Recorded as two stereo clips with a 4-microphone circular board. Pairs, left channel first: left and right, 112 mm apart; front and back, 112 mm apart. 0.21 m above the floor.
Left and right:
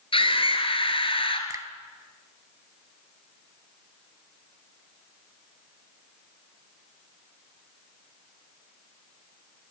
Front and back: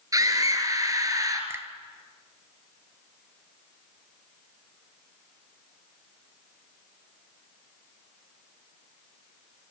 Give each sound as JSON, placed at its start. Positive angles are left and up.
{"t": 0.1, "sound": "a scream", "azimuth_deg": 125, "distance_m": 3.5}
{"t": 1.5, "sound": "a finger snap", "azimuth_deg": -130, "distance_m": 1.1}